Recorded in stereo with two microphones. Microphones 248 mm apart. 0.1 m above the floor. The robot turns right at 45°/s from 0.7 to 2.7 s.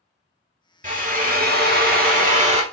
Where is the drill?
125° right, 1.1 m; by 2.6 s 45° right, 1.1 m.